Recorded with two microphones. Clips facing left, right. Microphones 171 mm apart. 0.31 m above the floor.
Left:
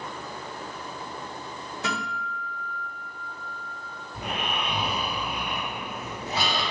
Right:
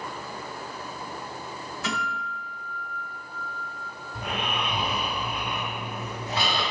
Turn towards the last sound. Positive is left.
turn(degrees=10)  # may be behind; listen again after turning